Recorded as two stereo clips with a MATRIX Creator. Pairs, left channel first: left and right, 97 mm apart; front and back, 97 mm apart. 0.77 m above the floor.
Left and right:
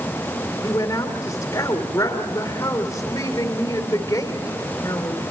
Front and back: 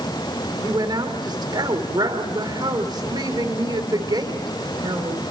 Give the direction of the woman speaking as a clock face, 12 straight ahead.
7 o'clock.